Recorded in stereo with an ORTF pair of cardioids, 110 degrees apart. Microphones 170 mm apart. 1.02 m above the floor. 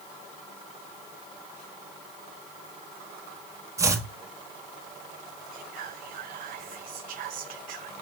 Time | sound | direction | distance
3.8 | chopping | 20° right | 1.6 m
5.5 | whispering | 55° right | 0.6 m